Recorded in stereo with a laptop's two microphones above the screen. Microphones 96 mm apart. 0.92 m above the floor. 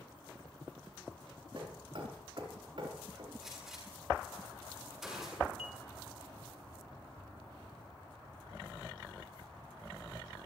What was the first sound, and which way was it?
Hammering, 60° right (ahead or behind).